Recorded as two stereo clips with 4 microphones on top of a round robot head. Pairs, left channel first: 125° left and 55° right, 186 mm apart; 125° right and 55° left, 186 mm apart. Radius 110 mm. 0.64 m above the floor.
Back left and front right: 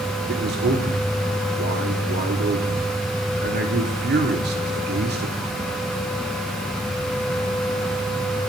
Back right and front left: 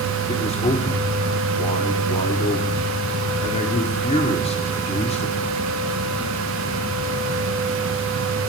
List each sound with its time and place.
0.3 s a man speaking: 75° right, 1.5 m